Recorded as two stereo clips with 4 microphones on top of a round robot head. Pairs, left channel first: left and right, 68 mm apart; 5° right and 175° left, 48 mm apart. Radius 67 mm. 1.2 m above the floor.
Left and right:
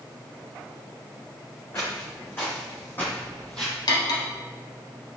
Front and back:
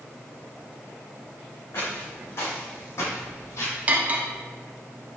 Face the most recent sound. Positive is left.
turn(degrees=110)